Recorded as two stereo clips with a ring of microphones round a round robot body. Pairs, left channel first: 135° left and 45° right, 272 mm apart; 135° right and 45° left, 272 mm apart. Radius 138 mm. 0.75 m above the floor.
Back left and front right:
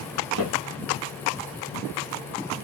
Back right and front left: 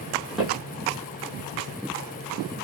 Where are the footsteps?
45° right, 1.2 m.